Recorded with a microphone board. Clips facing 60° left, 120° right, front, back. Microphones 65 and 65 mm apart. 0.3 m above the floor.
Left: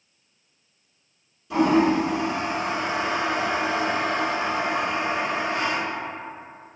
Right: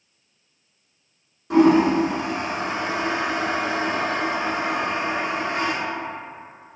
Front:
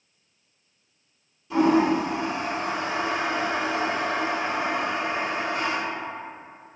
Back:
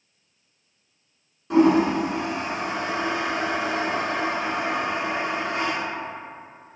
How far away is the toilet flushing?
About 0.8 m.